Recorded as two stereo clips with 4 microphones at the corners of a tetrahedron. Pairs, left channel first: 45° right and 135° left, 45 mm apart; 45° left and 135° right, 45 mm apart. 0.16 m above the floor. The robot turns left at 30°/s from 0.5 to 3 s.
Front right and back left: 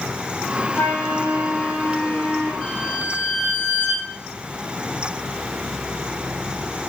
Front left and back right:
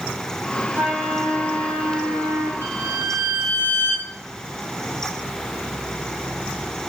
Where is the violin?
130° right, 3.5 m; by 4.1 s 140° right, 3.5 m.